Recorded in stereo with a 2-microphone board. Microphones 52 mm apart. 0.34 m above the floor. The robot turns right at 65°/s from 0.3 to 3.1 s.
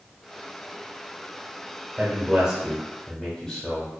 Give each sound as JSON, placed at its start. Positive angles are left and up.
{"t": 2.0, "sound": "a man speaking", "azimuth_deg": -50, "distance_m": 1.1}